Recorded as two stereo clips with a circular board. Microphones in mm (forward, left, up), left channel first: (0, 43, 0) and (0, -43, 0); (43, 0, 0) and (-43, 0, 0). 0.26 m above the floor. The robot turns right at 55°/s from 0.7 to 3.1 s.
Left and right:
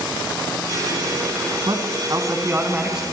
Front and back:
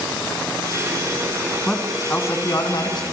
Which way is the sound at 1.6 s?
85° right.